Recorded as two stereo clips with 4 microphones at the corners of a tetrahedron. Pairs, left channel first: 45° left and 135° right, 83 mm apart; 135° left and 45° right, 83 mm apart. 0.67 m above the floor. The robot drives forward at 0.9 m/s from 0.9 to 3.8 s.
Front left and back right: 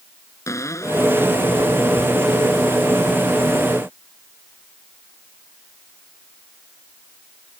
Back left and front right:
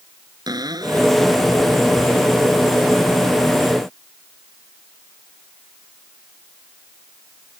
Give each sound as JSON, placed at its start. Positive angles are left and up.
{"t": 0.5, "sound": "a cupboard door", "azimuth_deg": -10}